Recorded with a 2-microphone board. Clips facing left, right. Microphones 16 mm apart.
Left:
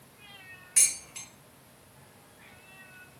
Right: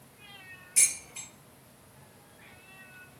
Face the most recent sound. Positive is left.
turn(degrees=55)  # may be behind; listen again after turning